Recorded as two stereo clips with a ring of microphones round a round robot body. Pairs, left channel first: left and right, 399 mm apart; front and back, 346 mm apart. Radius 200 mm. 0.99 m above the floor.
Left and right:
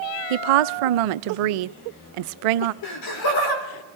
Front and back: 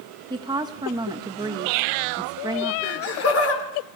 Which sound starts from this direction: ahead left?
Laughter, at 2.8 s.